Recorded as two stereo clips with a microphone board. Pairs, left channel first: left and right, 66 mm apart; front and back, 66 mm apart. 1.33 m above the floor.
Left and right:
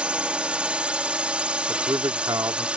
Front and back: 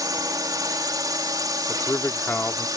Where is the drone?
160° right.